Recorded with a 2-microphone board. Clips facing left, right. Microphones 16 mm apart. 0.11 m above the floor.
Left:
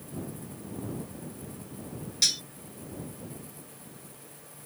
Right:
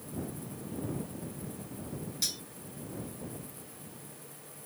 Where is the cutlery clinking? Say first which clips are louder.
Left 10 dB; 35° left (ahead or behind).